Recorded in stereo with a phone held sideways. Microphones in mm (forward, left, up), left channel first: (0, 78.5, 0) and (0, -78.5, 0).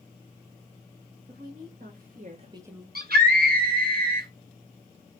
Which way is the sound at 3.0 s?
75° right (ahead or behind).